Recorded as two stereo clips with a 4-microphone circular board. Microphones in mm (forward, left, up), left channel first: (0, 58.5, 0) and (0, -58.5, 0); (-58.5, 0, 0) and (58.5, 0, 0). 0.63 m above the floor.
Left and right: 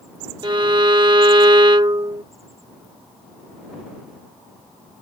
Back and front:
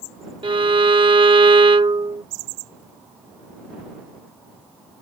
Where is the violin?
45° right.